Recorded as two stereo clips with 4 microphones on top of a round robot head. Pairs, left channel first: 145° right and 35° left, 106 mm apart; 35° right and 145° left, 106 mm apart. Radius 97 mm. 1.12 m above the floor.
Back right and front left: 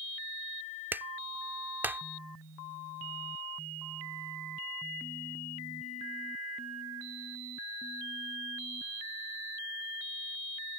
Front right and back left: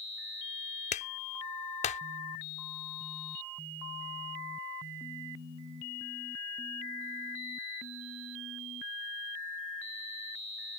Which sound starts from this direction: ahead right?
A clap, at 0.9 s.